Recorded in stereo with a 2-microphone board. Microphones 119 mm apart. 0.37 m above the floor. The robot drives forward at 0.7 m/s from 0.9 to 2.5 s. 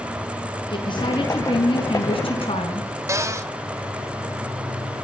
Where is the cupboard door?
25° right (ahead or behind), 2 m.